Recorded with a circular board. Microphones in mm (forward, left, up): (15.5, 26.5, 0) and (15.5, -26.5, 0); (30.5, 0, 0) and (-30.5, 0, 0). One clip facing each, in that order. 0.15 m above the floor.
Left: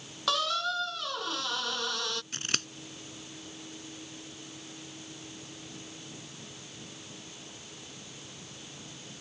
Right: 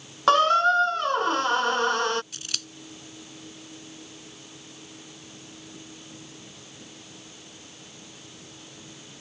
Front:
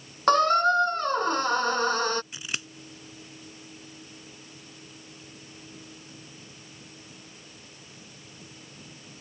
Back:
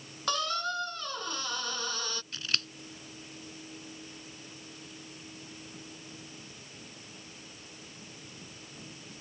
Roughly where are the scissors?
Left.